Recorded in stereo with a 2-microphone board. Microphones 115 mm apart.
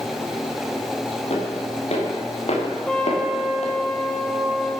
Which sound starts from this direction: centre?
A trumpet, at 2.9 s.